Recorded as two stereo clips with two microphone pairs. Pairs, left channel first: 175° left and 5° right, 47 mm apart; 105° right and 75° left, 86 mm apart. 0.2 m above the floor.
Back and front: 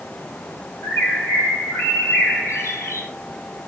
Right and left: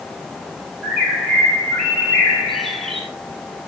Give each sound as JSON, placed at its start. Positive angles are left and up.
{"t": 0.8, "sound": "a bird", "azimuth_deg": 165, "distance_m": 1.5}